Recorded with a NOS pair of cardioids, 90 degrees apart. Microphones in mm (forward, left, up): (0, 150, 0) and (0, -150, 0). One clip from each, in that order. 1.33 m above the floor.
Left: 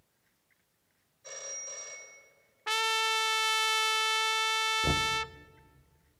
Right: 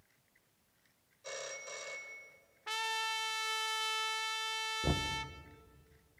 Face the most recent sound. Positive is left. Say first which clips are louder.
# left 7 dB
turn(degrees=10)